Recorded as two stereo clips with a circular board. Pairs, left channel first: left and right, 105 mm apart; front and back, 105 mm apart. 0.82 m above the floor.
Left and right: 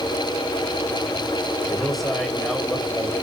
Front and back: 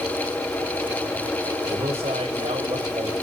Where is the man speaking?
Straight behind, 2.5 m; by 3.1 s 175° left, 3.5 m.